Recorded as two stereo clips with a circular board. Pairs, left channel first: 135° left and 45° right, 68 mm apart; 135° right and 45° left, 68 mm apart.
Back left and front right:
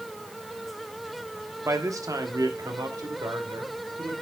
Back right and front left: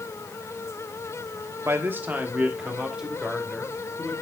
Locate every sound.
1.6 s a man speaking: 5° right, 1.3 m; by 4.1 s 45° right, 3 m